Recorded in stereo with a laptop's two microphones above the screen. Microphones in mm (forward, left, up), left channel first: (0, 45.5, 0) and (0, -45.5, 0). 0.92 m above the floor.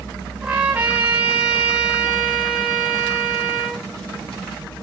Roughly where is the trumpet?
Centre.